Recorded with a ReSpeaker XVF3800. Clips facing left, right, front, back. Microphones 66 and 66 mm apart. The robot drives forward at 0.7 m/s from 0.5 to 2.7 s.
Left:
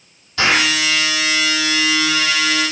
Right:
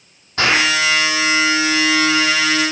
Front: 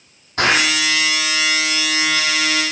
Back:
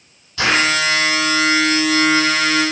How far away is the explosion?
About 8.5 m.